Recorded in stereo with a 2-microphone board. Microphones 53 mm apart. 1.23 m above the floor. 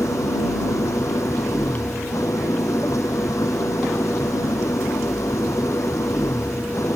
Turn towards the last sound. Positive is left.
turn(degrees=70)  # may be behind; listen again after turning